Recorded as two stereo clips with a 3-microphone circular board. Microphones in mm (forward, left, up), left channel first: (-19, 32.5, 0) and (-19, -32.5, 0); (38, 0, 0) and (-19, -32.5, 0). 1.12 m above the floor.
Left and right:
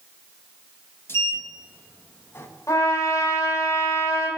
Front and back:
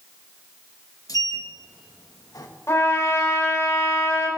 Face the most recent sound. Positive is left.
turn(degrees=70)